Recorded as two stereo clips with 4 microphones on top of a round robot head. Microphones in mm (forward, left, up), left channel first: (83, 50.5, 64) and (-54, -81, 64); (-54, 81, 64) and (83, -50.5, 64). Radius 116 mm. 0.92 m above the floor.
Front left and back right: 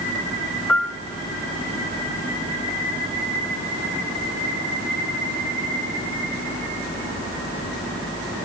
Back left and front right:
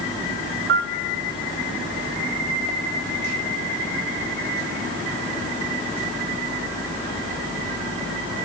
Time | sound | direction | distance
0.7 | a piano | 40° right | 0.7 m